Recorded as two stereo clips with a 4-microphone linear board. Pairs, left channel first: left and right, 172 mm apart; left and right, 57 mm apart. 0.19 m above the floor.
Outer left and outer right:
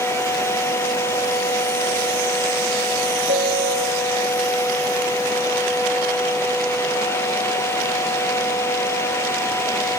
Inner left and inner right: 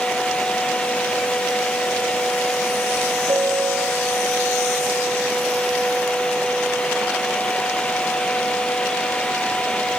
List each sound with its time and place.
3.3 s a piano: 70° right (ahead or behind), 3 m